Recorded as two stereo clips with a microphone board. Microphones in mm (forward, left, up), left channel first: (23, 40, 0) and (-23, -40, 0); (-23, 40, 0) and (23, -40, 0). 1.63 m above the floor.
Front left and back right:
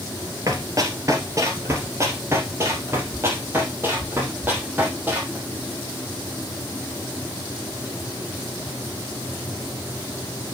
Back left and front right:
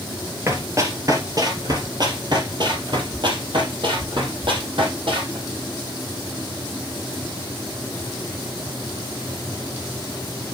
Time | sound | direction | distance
0.5 | running footsteps | 95° right | 2 m